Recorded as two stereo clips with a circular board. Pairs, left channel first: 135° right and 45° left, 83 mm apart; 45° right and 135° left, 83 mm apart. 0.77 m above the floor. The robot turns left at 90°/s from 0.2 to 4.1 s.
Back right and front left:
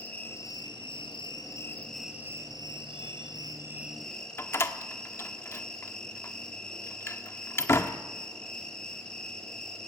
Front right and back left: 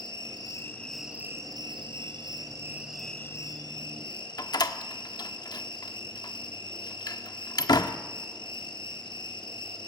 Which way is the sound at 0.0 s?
65° right.